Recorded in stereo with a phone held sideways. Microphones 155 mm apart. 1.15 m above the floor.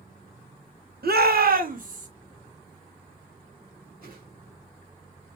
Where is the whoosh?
70° right (ahead or behind), 2 m.